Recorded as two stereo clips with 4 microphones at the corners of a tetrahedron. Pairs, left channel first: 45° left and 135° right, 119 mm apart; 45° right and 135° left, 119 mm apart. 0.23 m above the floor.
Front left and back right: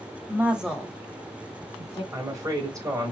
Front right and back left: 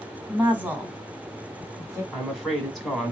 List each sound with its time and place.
0.3 s a woman speaking: 165° right, 1.1 m; by 2.0 s 80° left, 1.6 m
2.1 s a woman speaking: 135° right, 1.4 m